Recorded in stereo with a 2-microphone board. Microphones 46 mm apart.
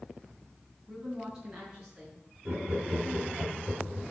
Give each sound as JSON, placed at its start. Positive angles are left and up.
{"t": 0.9, "sound": "a woman speaking", "side_deg": -15, "distance_m": 3.5}
{"t": 2.5, "sound": "laughter", "side_deg": -35, "distance_m": 1.3}